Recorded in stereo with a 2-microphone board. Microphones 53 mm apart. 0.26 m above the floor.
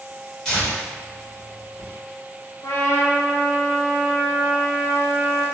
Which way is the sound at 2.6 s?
75° left (ahead or behind).